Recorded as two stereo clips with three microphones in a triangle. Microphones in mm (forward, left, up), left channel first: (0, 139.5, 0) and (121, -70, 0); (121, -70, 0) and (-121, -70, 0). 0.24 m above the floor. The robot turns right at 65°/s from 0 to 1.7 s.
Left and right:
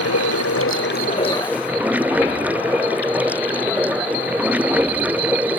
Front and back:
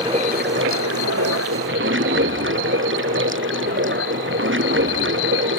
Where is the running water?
105° left; by 5.6 s 145° right.